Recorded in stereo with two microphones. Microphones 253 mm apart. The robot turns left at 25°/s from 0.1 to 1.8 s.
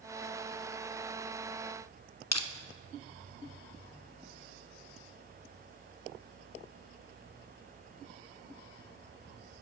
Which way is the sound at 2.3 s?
90° left.